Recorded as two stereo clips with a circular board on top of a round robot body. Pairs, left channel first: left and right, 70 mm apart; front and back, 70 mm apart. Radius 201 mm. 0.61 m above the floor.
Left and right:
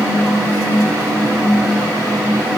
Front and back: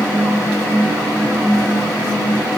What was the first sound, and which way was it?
Only background noise.